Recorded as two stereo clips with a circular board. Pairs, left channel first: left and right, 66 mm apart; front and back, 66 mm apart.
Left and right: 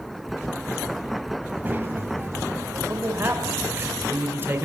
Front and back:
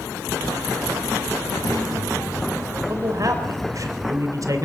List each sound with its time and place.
1.4 s a child speaking: 25° right, 3 m; by 3.9 s 80° right, 2.5 m
2.9 s a man speaking: 145° right, 2.5 m